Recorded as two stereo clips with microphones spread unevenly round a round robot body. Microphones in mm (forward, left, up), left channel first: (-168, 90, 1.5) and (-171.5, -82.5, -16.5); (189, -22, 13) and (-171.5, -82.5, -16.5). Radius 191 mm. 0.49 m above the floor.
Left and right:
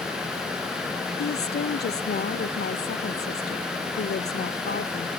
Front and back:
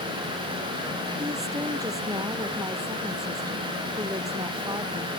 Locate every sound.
1.2 s a woman speaking: 110° left